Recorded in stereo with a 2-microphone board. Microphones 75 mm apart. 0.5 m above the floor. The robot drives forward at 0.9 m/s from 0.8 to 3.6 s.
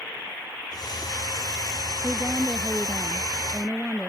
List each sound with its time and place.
2.0 s a woman speaking: 5° right (ahead or behind)